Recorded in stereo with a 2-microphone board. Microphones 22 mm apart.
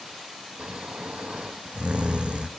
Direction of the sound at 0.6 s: 65° right (ahead or behind).